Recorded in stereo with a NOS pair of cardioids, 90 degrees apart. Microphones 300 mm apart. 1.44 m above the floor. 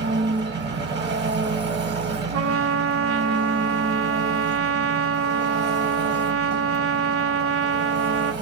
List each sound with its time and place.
0.0 s an engine running: 35° right, 0.8 m
2.3 s a trumpet: 45° right, 0.5 m